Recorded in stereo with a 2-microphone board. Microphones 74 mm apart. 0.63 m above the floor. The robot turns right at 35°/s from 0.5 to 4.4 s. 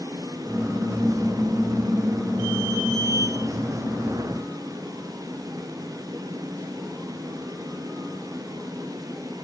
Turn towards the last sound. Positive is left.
No sound to turn to.